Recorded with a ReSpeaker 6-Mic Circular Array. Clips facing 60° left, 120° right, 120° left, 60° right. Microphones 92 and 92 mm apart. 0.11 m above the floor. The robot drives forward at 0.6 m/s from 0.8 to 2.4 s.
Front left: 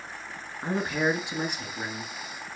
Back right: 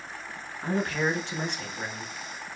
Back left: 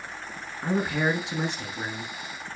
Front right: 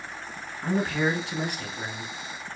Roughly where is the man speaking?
Left.